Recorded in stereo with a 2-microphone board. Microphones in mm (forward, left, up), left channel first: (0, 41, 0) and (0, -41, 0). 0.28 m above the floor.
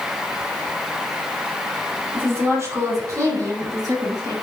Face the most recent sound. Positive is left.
turn(degrees=-50)  # may be behind; listen again after turning